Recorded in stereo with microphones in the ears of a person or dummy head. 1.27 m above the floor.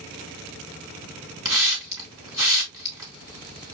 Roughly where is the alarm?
I don't hear an alarm.